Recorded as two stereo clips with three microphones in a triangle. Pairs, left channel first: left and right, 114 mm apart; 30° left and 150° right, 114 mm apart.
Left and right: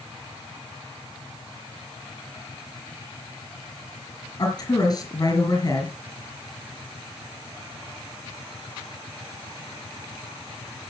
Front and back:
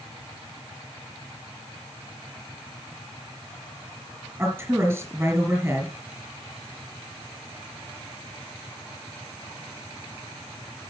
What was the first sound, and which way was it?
A woman speaking, 140° left.